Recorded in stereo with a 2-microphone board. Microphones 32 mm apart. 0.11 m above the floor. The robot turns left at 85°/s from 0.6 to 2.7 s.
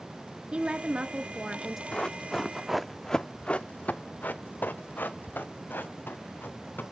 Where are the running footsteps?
25° left (ahead or behind), 1.0 m; by 6.8 s 85° left, 3 m.